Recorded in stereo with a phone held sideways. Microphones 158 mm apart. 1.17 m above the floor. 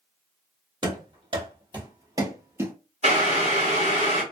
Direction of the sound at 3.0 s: 45° right (ahead or behind).